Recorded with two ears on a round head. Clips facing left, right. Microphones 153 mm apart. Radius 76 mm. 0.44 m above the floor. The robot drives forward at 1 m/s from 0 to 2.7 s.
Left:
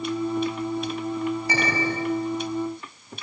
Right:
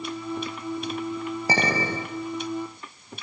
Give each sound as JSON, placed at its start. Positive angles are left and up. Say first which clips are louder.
{"t": 1.5, "sound": "a clink", "louder": "even", "side_deg": -30, "distance_m": 5.5}